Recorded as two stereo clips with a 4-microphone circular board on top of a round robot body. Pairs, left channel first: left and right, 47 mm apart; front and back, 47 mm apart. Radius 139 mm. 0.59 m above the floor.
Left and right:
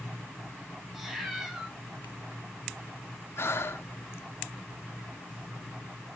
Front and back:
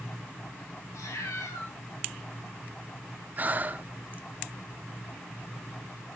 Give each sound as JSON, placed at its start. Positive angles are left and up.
{"t": 0.9, "sound": "a cat meowing", "azimuth_deg": 0, "distance_m": 1.4}
{"t": 3.4, "sound": "breathing", "azimuth_deg": 125, "distance_m": 0.6}